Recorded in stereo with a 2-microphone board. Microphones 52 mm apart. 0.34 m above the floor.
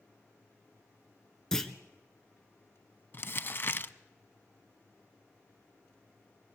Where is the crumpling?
45° left (ahead or behind), 0.7 m.